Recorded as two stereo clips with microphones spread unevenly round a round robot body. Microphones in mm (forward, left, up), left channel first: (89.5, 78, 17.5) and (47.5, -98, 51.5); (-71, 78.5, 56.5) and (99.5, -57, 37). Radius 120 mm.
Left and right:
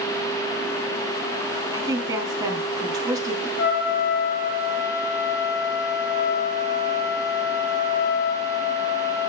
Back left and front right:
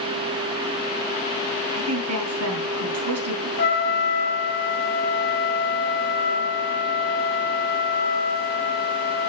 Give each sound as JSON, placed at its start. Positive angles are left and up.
{"t": 1.7, "sound": "a woman speaking", "azimuth_deg": -30, "distance_m": 4.0}
{"t": 3.6, "sound": "a trumpet", "azimuth_deg": 105, "distance_m": 2.5}